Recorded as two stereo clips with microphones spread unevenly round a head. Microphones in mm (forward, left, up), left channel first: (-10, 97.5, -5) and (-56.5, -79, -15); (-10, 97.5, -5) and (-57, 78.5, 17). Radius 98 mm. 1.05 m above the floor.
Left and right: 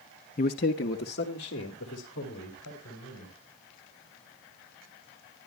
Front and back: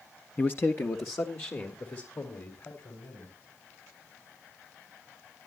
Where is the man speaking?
35° left, 0.5 m; by 3.3 s 50° left, 3.5 m.